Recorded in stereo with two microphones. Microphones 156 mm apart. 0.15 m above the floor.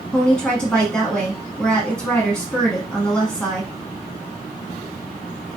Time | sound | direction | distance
0.1 | a woman speaking | 5° left (ahead or behind) | 1.1 m